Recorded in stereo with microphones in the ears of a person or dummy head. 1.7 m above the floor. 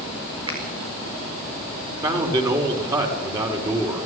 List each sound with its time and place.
0.5 s a finger snap: 30° right (ahead or behind), 6 m
2.0 s a man speaking: 20° right (ahead or behind), 5 m